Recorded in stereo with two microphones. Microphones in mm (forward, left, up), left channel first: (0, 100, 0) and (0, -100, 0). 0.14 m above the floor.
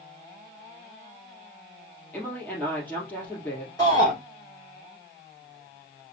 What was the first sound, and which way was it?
A woman speaking, 10° left (ahead or behind).